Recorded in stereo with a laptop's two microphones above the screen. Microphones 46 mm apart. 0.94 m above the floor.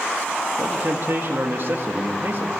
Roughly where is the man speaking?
Right.